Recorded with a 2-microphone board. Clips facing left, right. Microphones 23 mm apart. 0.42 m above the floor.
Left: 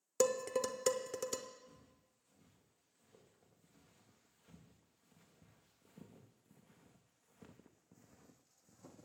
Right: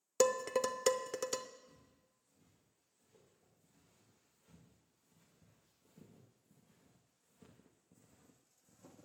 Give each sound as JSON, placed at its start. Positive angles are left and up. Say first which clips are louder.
{"t": 0.2, "sound": "dishes clattering", "louder": "right 2 dB", "side_deg": -20, "distance_m": 0.5}
{"t": 1.7, "sound": "footsteps", "louder": "left 2 dB", "side_deg": 80, "distance_m": 4.5}